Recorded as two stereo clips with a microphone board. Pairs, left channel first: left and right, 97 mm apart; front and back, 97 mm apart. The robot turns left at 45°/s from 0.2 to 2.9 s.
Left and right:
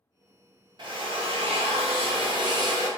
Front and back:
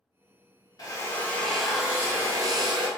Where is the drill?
50° right, 0.7 m; by 2.9 s 145° right, 0.7 m.